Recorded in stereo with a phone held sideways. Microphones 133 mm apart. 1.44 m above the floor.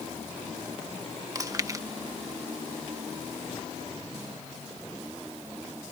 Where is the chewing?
25° right (ahead or behind).